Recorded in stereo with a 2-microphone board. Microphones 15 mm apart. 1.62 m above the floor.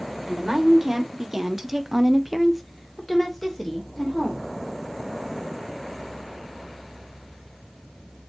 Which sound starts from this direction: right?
A woman speaking, at 0.3 s.